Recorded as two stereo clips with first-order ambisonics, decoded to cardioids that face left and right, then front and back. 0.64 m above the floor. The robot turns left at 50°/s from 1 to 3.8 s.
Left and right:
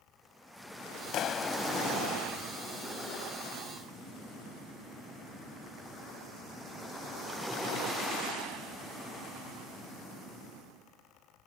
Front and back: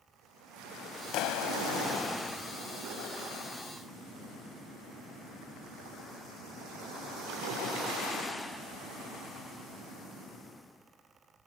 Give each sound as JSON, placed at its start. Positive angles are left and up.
{"t": 1.1, "sound": "a clap", "azimuth_deg": 40}